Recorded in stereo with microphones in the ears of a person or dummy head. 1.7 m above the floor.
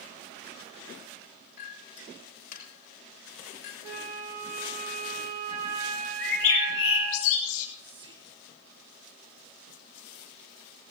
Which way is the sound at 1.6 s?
55° left (ahead or behind).